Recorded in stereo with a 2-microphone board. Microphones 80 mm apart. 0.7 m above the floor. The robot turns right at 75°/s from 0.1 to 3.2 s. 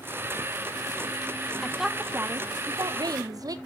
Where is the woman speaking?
170° left, 0.7 m; by 3.6 s 70° right, 0.7 m.